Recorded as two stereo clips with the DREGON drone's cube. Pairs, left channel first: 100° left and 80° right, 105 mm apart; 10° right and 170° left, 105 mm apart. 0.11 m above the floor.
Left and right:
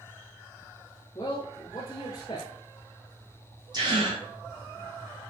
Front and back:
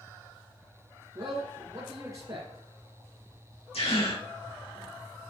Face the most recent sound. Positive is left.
turn(degrees=-35)